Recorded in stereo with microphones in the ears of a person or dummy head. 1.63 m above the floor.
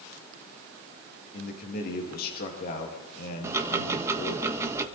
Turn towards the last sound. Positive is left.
turn(degrees=-15)  # may be behind; listen again after turning